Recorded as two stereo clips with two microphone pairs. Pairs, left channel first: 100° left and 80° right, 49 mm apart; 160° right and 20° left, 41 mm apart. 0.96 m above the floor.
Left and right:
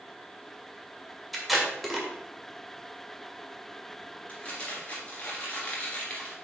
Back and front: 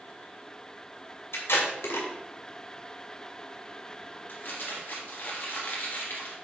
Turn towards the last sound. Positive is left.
turn(degrees=165)